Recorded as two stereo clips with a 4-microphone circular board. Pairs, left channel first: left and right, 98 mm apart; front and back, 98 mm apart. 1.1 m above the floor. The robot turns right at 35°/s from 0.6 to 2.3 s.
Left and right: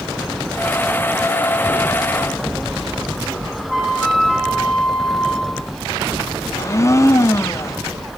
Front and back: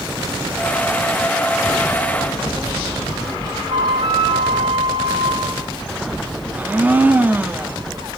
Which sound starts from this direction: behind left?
A blender, at 6.5 s.